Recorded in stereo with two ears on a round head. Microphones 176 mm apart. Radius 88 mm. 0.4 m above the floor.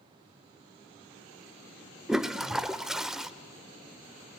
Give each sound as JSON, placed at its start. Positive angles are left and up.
{"t": 2.1, "sound": "a toilet flushing", "side_deg": -5, "distance_m": 0.6}